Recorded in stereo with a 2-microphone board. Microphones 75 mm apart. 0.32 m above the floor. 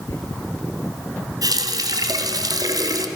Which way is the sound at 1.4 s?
65° right (ahead or behind).